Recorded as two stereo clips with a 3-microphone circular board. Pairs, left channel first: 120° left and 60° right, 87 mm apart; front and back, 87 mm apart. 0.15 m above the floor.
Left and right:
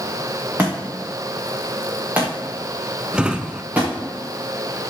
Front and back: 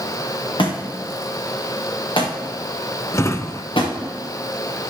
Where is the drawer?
15° left, 0.6 m.